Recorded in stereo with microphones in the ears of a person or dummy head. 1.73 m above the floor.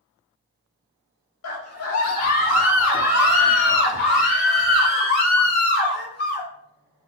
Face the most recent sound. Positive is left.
turn(degrees=45)  # may be behind; listen again after turning